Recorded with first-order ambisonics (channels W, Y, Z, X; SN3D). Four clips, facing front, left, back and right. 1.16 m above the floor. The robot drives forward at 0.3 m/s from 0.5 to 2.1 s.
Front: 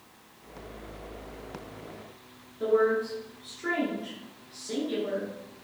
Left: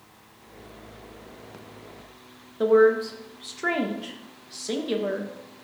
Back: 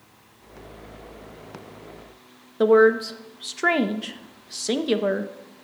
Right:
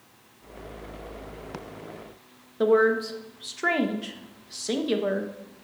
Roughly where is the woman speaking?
Behind.